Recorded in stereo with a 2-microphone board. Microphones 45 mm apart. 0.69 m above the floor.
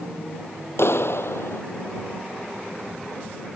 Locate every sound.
0.8 s a clap: 65° left (ahead or behind)